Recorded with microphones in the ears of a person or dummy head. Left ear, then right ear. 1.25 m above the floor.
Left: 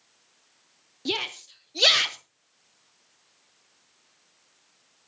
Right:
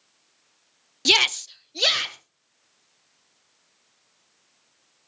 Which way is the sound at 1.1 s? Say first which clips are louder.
Right 11 dB; 60° right (ahead or behind).